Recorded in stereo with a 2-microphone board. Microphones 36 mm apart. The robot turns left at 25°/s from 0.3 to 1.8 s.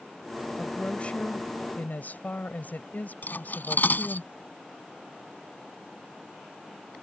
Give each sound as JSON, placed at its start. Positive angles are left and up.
{"t": 0.6, "sound": "a woman speaking", "azimuth_deg": 155}
{"t": 3.2, "sound": "cutlery clinking", "side_deg": 60}